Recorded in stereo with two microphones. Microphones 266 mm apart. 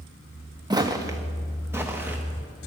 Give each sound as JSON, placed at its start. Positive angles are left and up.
{"t": 0.7, "sound": "footsteps", "side_deg": -15, "distance_m": 1.1}